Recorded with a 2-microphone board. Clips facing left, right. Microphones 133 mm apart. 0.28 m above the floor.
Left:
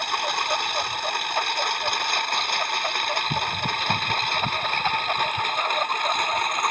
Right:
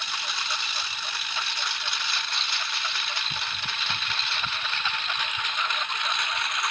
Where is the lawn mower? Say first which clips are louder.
Left 10 dB; 55° left (ahead or behind); by 6.7 s 45° left (ahead or behind).